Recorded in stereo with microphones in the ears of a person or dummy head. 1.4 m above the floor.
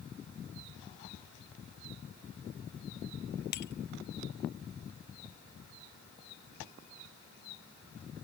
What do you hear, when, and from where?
3.5 s breaking glass: 60° left (ahead or behind)